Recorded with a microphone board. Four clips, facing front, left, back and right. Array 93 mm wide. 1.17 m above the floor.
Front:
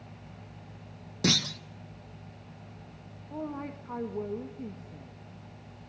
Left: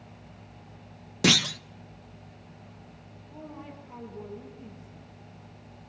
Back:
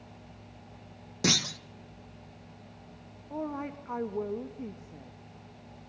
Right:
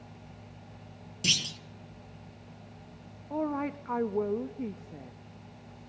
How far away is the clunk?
About 0.7 m.